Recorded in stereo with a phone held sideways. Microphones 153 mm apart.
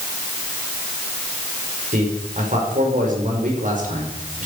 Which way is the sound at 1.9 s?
65° right (ahead or behind).